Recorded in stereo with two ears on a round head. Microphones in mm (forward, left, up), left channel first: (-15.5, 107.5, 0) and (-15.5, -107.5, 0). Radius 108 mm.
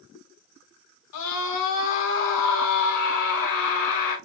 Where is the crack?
No crack in this recording.